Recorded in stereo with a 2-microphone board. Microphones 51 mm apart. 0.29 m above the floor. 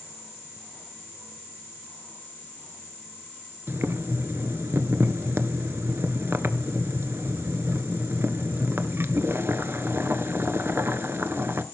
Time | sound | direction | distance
3.7 | boiling | 50° right (ahead or behind) | 1.0 m